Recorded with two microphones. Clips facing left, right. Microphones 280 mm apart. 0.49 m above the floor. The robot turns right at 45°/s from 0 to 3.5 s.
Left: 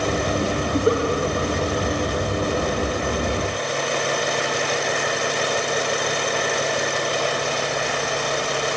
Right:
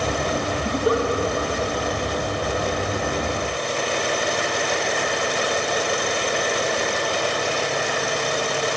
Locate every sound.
0.7 s a giggle: 75° right (ahead or behind), 2.5 m; by 1.0 s 55° right (ahead or behind), 2.5 m